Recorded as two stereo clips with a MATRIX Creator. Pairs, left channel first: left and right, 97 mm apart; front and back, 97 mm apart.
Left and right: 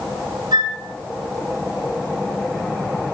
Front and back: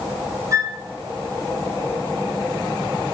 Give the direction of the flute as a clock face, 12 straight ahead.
4 o'clock.